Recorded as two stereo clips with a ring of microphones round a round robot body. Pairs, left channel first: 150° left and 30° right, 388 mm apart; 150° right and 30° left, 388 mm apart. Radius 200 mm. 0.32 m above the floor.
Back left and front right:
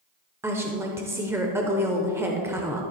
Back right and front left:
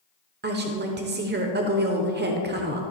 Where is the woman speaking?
45° left, 1.0 m.